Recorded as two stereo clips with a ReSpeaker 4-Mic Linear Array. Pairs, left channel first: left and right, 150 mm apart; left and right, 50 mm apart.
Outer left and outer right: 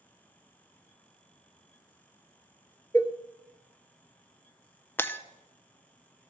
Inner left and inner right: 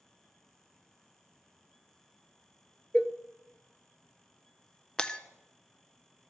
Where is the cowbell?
20° left (ahead or behind), 0.6 m.